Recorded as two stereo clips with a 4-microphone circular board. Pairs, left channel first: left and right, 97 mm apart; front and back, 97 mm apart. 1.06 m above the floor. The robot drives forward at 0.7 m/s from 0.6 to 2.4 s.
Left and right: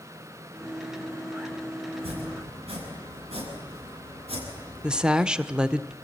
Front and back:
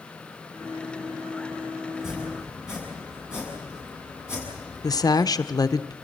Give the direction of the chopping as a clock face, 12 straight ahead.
3 o'clock.